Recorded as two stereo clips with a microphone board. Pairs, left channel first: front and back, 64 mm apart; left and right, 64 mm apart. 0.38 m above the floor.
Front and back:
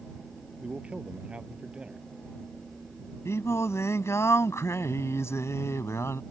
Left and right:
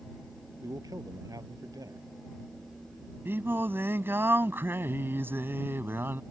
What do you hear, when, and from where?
0.6 s a man speaking: 105° right
3.2 s singing: 40° right